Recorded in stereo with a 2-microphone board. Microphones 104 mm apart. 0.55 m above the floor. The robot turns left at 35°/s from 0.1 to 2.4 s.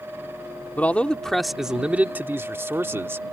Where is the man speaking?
25° left; by 3.3 s 35° right.